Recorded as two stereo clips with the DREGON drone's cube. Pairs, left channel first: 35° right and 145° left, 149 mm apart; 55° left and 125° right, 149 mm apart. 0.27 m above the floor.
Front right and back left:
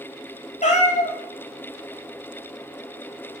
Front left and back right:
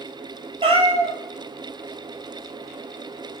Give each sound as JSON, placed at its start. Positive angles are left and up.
{"t": 0.6, "sound": "a cat meowing", "azimuth_deg": -70, "distance_m": 0.7}